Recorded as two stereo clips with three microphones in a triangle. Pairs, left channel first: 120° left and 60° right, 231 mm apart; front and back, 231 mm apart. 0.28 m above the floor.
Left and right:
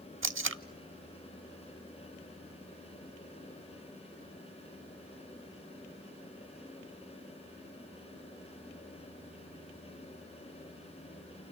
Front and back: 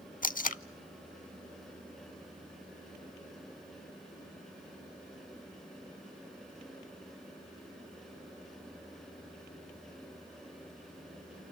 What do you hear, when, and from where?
0.2 s tape being pulled: 50° right, 0.6 m